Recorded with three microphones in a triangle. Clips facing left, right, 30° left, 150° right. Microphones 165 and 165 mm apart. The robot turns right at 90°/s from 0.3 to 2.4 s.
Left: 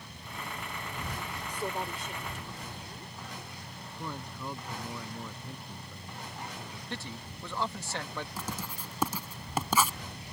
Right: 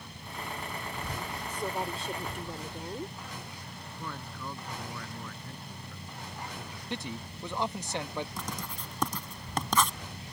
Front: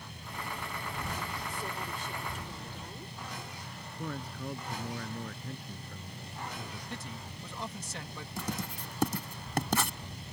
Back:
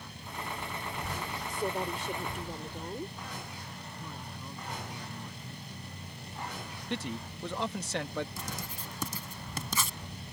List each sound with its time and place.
1.5 s a woman speaking: 165° left; by 3.2 s 115° right
4.0 s a man speaking: 15° left
6.9 s a man speaking: 165° right
8.4 s writing: 10° left